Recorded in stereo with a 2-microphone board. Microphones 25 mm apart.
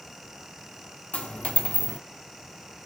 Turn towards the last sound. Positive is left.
turn(degrees=70)  # may be behind; listen again after turning